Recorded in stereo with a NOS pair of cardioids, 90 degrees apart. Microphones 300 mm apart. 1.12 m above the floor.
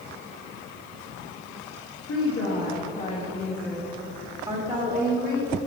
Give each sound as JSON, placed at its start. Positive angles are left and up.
{"t": 2.0, "sound": "a woman speaking", "azimuth_deg": 55, "distance_m": 1.7}